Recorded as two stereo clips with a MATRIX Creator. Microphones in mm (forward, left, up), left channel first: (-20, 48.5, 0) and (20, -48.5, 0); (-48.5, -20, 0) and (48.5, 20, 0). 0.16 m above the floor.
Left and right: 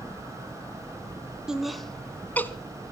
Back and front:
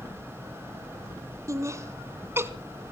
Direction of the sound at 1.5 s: 10° left.